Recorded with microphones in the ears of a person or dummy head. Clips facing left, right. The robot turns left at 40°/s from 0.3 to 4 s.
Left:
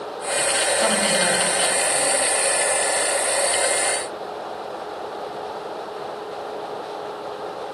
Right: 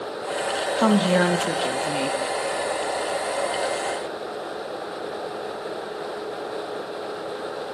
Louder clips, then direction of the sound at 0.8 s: Right 6 dB; 70° right.